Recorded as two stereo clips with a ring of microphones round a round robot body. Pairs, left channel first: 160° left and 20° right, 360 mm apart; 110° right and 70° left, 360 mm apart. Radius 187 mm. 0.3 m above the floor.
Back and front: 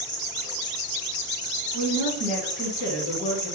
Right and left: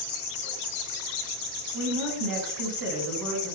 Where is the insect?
135° right, 1.4 m.